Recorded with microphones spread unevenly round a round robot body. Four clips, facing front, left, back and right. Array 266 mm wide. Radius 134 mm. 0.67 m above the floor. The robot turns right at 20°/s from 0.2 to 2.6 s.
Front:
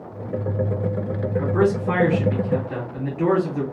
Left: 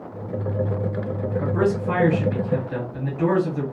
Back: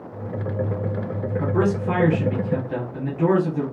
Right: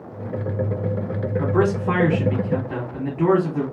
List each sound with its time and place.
1.4 s a man speaking: 90° right, 2.0 m; by 3.6 s 65° right, 2.0 m